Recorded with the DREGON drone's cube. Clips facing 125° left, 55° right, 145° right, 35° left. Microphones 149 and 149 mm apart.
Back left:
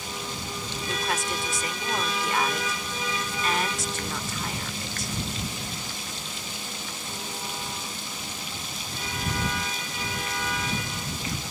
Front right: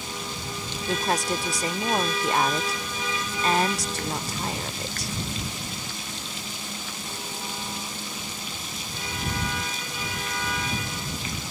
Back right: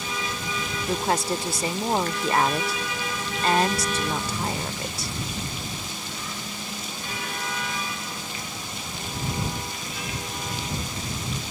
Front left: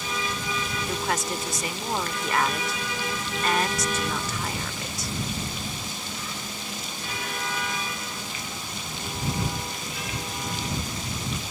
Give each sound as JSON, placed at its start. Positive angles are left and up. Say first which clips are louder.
{"t": 0.9, "sound": "a woman speaking", "louder": "front right 5 dB, back right 5 dB", "azimuth_deg": -95}